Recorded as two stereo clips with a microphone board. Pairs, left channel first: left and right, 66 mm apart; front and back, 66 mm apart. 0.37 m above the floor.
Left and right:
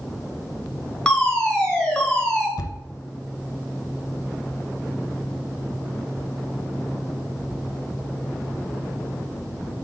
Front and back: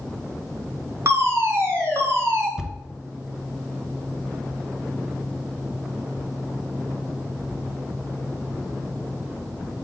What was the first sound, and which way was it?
A fire alarm, 155° left.